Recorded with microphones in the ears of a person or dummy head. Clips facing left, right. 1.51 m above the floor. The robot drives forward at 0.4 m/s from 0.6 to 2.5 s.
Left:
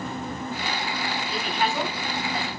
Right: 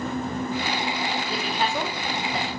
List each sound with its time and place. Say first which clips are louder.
1.3 s a woman speaking: left 2 dB; 35° right (ahead or behind), 2 m; by 2.5 s 25° right (ahead or behind), 2.5 m